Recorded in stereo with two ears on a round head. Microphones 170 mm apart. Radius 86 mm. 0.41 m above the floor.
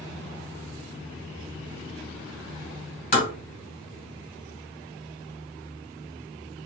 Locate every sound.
3.1 s tapping: 40° left (ahead or behind), 2.5 m